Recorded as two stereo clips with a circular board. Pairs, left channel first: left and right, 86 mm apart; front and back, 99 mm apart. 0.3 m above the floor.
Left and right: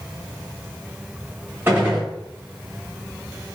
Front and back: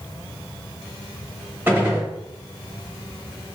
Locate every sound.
1.7 s a gunshot: 130° right, 1.0 m